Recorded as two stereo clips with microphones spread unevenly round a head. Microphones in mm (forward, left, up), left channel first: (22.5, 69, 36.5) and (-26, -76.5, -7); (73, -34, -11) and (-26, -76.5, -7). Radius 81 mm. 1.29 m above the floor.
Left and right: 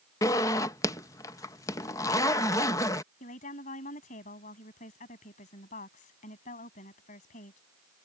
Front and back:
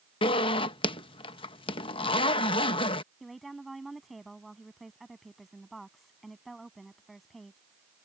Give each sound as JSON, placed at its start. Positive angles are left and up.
{"t": 0.2, "sound": "a zipper", "azimuth_deg": 30}
{"t": 3.2, "sound": "a woman speaking", "azimuth_deg": 115}